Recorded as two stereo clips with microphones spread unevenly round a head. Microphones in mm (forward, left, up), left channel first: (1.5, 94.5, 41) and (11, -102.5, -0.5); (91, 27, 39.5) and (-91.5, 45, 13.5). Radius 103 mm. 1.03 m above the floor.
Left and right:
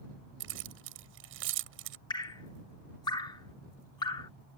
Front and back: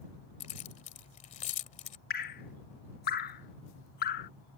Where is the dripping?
25° left.